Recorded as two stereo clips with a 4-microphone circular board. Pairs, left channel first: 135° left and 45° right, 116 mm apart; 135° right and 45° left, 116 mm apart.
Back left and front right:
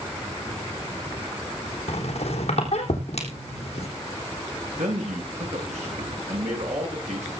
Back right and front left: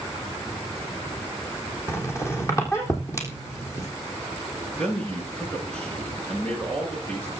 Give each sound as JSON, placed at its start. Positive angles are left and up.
{"t": 1.9, "sound": "a squeak", "azimuth_deg": 160, "distance_m": 3.5}
{"t": 4.8, "sound": "a man speaking", "azimuth_deg": -55, "distance_m": 9.0}